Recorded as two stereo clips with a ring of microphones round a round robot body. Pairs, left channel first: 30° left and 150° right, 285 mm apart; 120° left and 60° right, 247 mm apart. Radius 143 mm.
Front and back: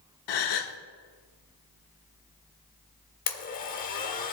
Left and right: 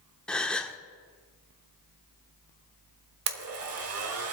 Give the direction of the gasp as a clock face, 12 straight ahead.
11 o'clock.